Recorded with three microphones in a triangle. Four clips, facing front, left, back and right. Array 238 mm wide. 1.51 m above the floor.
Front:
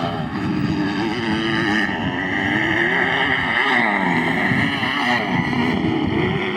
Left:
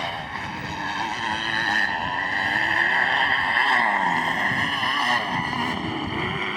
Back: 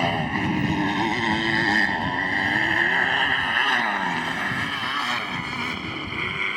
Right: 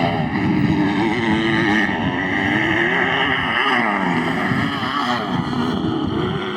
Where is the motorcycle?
80° right; by 6.6 s 35° right.